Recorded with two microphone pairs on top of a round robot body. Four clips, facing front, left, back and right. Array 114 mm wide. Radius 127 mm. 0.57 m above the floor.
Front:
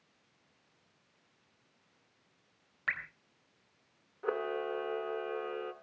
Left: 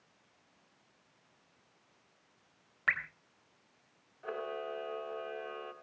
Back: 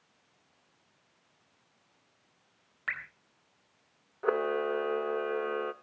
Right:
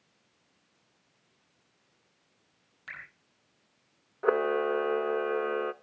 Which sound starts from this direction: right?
A camera shutter, at 4.2 s.